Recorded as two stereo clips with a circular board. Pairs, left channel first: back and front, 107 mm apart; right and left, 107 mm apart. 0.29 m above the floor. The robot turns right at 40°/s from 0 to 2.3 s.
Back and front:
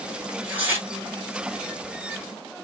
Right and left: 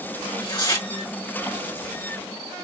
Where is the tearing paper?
80° right, 2 m; by 0.9 s 55° right, 2 m.